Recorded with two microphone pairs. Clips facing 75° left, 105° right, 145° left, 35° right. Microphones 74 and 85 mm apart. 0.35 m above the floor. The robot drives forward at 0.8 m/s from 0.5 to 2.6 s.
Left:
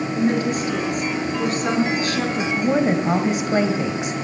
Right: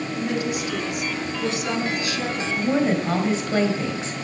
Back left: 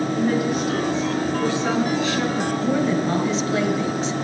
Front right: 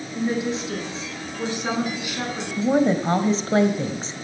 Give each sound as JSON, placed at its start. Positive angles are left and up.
{"t": 0.1, "sound": "a woman speaking", "azimuth_deg": 30, "distance_m": 4.5}
{"t": 2.6, "sound": "a woman speaking", "azimuth_deg": 10, "distance_m": 1.5}